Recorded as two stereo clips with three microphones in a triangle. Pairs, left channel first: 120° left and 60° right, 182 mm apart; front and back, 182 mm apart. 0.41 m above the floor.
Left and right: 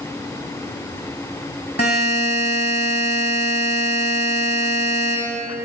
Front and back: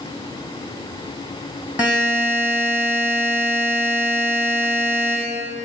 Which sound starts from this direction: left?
A buzzer, at 1.8 s.